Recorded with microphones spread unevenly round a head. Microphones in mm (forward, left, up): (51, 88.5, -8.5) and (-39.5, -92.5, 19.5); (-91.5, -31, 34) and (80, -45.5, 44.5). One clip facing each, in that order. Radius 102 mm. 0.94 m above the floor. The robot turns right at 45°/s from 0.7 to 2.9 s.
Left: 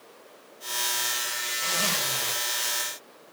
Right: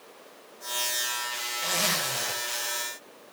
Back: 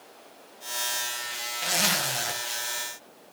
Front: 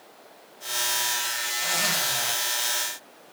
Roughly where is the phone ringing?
I don't hear a phone ringing.